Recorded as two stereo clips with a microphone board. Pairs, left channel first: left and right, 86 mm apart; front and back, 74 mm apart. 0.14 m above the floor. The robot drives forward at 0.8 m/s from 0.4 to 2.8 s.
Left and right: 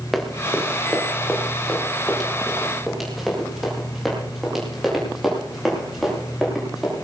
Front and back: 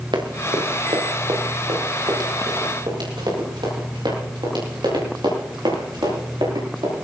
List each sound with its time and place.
0.1 s running footsteps: straight behind, 3 m; by 7.0 s 175° right, 10.5 m